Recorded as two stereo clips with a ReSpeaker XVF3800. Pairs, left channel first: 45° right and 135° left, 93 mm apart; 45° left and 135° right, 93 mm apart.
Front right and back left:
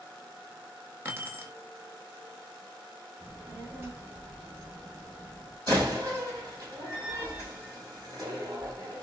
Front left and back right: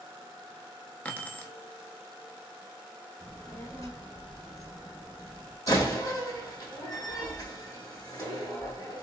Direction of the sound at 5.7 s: 90° left.